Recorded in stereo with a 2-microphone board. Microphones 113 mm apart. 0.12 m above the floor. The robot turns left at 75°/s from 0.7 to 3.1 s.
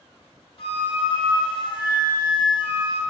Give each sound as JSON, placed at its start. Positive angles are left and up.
{"t": 0.6, "sound": "a flute", "azimuth_deg": 125, "distance_m": 0.7}